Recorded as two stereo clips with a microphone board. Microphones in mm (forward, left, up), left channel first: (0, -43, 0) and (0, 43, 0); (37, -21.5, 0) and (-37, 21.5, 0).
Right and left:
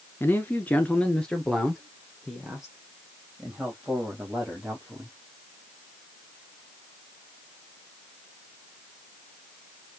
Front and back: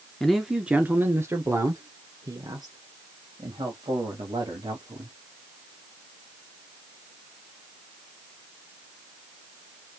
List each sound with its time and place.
0.2 s a man speaking: 110° right, 1.2 m; by 5.1 s 170° left, 4.5 m